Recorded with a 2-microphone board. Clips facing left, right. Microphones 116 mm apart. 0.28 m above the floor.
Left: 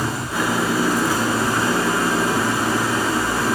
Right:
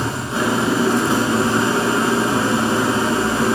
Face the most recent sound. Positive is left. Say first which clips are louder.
# right 2 dB
turn(degrees=-25)  # may be behind; listen again after turning